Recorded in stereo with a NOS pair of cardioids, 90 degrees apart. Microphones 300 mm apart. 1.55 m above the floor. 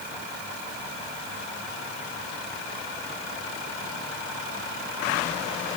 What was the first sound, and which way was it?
Only background noise.